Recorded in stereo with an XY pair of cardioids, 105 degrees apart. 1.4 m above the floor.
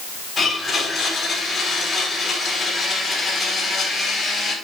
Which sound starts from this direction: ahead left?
A blender, at 0.4 s.